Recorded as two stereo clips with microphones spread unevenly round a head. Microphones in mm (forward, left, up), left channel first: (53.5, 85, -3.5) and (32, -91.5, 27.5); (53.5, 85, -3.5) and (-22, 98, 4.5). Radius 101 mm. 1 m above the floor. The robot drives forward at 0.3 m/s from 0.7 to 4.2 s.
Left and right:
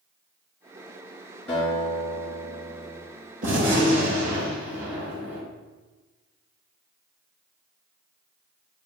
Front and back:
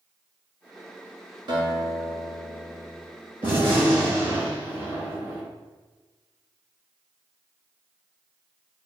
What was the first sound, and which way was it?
A guitar, 170° left.